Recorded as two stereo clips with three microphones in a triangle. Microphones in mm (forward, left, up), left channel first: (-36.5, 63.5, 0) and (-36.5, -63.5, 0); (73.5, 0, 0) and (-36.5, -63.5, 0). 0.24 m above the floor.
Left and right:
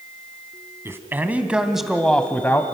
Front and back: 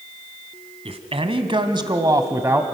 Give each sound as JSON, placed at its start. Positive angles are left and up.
{"t": 0.8, "sound": "a man speaking", "azimuth_deg": -155, "distance_m": 1.5}